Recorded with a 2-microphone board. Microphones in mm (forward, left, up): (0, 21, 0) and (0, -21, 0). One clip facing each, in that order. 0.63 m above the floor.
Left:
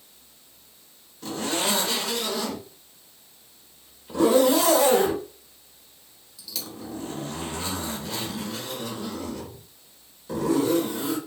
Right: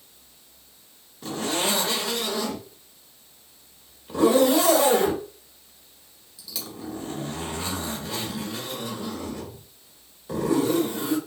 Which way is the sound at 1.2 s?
15° right (ahead or behind).